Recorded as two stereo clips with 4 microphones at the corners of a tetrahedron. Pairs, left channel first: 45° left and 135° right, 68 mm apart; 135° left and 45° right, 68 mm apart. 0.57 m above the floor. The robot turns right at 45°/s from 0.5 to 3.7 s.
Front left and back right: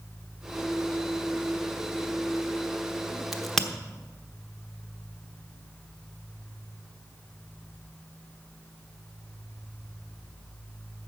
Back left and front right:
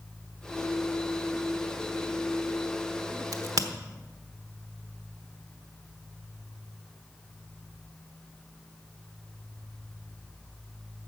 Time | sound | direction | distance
3.3 | a crack | 50° right | 1.0 m